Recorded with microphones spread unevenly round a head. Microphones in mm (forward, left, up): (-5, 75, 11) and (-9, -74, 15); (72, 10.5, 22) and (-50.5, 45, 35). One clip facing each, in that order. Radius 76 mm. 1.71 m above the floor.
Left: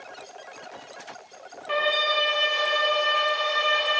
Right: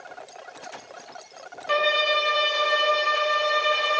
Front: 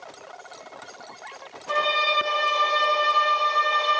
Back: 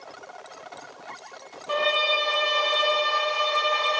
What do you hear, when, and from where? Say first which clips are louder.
1.7 s a violin: right 2 dB, even; 110° right, 0.7 m